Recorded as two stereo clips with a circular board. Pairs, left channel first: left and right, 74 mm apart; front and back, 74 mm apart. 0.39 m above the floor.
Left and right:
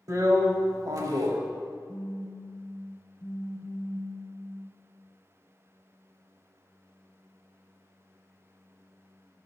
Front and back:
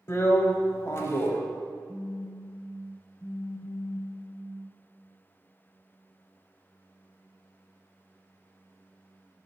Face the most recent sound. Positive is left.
turn(degrees=70)